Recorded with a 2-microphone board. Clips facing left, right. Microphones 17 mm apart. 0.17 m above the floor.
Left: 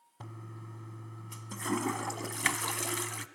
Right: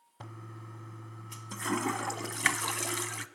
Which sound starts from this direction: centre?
A toilet flushing, at 0.2 s.